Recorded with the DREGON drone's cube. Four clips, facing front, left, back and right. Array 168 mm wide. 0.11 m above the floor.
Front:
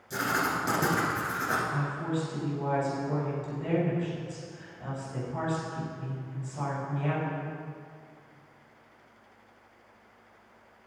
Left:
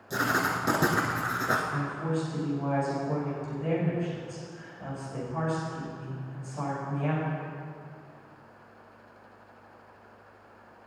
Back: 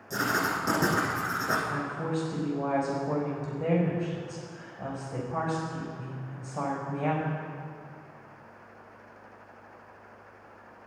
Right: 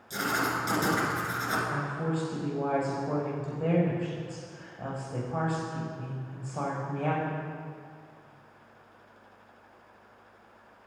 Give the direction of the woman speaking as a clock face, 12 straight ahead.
5 o'clock.